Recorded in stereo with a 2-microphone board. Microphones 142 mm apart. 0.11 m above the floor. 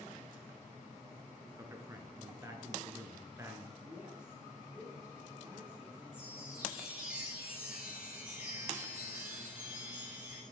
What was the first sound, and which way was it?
A man speaking, 20° right (ahead or behind).